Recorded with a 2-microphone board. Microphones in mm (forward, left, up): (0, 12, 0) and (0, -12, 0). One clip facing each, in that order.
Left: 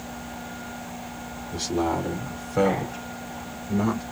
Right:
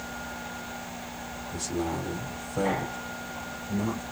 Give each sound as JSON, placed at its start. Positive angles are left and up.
{"t": 1.5, "sound": "a man speaking", "side_deg": 60, "distance_m": 3.5}